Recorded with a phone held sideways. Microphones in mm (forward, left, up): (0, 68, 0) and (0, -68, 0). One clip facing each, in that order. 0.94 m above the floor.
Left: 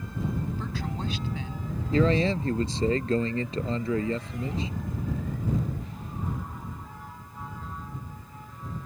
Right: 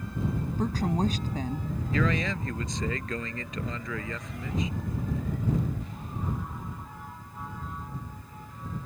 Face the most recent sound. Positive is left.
turn(degrees=30)  # may be behind; listen again after turning